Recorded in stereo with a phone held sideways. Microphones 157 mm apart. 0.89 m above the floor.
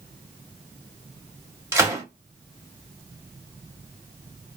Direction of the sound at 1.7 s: 15° right (ahead or behind).